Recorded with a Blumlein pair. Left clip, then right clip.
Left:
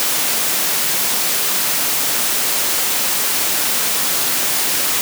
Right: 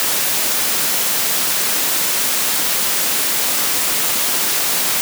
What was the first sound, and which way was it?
Only background noise.